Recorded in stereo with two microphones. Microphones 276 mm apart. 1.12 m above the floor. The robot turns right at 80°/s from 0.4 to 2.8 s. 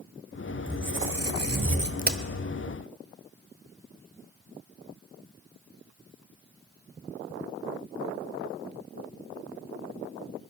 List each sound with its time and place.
0.7 s a squeak: 145° right, 1.1 m; by 1.9 s 45° right, 1.1 m
2.0 s a crack: 30° right (ahead or behind), 0.8 m; by 2.2 s 45° right (ahead or behind), 0.8 m